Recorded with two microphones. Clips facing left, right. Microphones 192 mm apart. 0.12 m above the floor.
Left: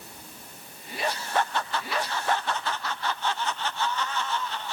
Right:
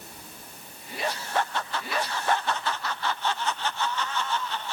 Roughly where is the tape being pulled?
No tape being pulled in this recording.